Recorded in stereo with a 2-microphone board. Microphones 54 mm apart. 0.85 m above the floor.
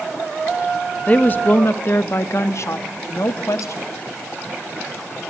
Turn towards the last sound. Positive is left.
turn(degrees=70)  # may be behind; listen again after turning